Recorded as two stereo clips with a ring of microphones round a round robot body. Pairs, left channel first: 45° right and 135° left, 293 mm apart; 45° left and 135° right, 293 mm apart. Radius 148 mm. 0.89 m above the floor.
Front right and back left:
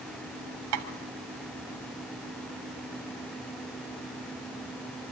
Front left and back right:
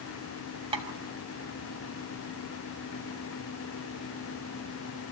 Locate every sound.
0.7 s tapping: 150° left, 2.5 m